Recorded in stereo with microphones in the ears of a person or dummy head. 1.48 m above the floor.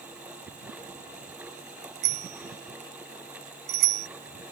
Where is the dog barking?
No dog barking in this recording.